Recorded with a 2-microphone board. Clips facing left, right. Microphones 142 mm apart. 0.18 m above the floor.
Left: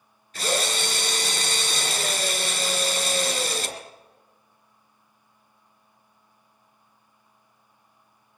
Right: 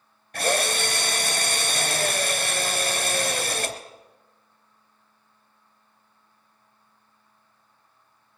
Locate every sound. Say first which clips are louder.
0.3 s a drill: right 2 dB; 60° right (ahead or behind), 3 m